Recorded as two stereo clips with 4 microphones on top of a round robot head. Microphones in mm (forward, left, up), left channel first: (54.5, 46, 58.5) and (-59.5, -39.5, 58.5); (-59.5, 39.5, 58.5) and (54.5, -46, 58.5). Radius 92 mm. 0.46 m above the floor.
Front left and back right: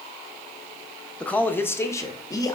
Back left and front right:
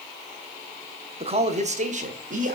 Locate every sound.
1.2 s a man speaking: 40° right, 0.9 m; by 2.5 s 25° right, 1.4 m